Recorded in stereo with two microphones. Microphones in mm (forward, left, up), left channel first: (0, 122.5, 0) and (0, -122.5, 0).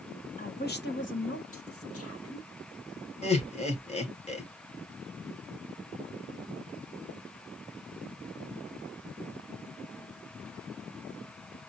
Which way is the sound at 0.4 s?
35° left (ahead or behind).